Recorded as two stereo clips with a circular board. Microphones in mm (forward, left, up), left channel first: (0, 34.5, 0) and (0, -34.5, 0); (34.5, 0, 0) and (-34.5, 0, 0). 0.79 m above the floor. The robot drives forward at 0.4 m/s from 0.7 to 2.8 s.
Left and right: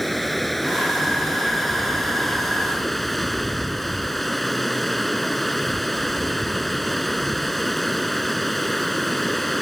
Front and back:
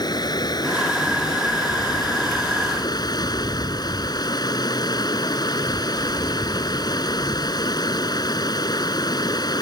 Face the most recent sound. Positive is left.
turn(degrees=0)